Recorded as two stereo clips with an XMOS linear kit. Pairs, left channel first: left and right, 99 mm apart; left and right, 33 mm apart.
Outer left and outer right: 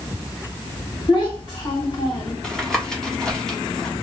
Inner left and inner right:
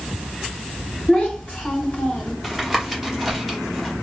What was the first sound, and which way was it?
A child speaking, 50° left (ahead or behind).